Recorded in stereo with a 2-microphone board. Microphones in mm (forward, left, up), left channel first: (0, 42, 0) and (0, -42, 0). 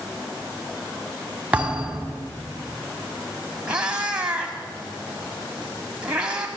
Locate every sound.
1.5 s a thud: 15° right (ahead or behind), 3.5 m
3.7 s a cat meowing: 10° right (ahead or behind), 3.5 m